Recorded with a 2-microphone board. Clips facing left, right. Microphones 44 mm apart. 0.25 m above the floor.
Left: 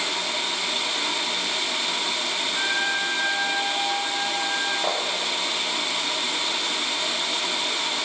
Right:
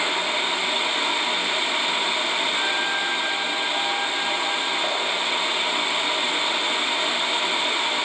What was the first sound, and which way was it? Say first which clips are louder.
A trumpet: right 1 dB; 10° left (ahead or behind).